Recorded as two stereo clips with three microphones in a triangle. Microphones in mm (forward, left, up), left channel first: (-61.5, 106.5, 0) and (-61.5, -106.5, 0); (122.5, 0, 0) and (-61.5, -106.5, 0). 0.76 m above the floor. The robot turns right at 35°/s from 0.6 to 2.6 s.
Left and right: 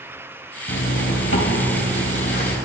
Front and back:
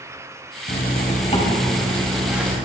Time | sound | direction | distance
0.7 | a zipper | 65° left | 4 m